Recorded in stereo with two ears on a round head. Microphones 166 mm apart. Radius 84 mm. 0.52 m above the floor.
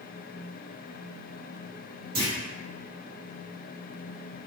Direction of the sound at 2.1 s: 45° right (ahead or behind).